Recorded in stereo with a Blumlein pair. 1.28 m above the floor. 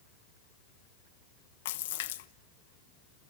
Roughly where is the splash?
Ahead left.